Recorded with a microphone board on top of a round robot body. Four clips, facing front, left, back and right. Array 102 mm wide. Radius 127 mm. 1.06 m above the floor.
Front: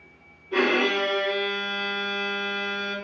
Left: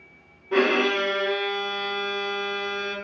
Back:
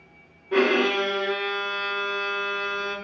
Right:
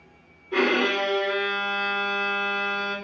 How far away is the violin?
About 0.5 m.